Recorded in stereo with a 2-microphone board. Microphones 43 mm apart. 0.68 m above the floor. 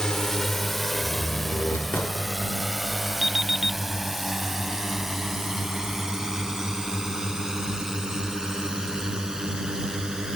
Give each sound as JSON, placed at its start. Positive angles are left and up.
{"t": 0.0, "sound": "a drone", "side_deg": 10}
{"t": 1.0, "sound": "a door slam", "side_deg": 55}
{"t": 3.2, "sound": "an alarm clock", "side_deg": -5}